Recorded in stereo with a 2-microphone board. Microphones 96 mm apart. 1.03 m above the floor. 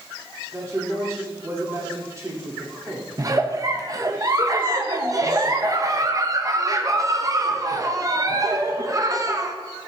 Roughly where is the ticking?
I don't hear ticking.